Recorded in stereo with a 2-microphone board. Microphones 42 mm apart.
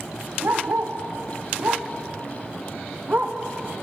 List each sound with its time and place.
0.4 s a dog barking: 65° right (ahead or behind), 3.5 m; by 3.4 s 35° right (ahead or behind), 2.5 m